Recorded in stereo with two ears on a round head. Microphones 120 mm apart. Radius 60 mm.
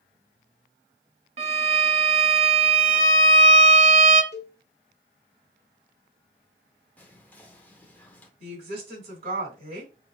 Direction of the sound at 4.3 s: 50° left (ahead or behind).